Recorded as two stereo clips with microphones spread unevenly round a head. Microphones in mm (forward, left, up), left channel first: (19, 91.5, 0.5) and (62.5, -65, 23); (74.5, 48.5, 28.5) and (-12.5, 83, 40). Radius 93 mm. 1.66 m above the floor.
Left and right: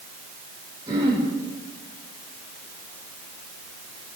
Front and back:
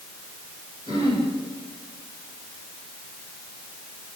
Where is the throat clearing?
140° right, 5 m.